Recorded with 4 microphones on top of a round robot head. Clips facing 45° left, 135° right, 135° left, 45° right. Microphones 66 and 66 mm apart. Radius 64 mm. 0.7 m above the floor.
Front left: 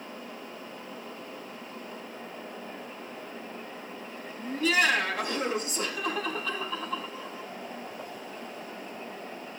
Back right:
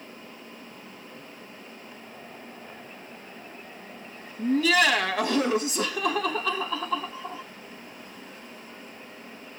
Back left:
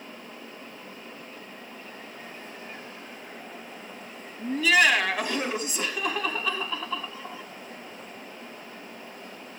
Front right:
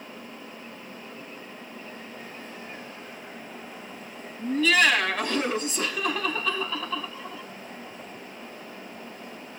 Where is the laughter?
145° right, 4.5 m.